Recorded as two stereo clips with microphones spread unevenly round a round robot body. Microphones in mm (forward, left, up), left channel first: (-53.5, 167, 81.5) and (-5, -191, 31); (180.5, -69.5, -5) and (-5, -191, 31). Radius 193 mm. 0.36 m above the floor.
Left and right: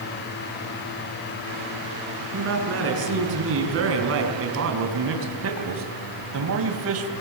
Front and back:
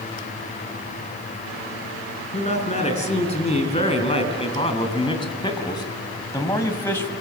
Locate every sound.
2.3 s a man speaking: 25° right, 4.5 m; by 7.1 s 45° right, 2 m